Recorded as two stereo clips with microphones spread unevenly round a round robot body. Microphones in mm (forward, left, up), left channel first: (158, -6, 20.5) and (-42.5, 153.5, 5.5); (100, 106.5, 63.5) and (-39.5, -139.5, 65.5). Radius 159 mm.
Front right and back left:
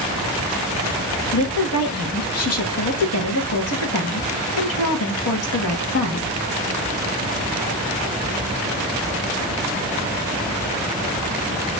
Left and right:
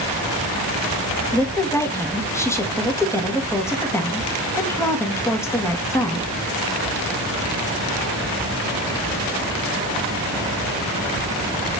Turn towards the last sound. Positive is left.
turn(degrees=-20)